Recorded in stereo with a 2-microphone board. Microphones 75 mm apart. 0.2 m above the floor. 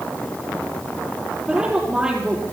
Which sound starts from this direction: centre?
A woman speaking, at 1.5 s.